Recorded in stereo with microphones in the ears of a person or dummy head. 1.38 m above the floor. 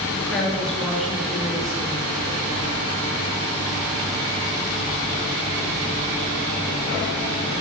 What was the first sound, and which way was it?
A woman speaking, centre (ahead or behind).